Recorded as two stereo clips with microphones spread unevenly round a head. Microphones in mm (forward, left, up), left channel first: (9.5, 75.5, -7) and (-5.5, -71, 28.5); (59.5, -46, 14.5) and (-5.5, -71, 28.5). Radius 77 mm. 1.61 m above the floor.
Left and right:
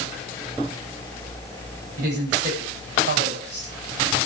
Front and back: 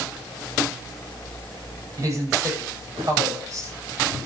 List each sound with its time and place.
2.0 s a woman speaking: 115° right, 9 m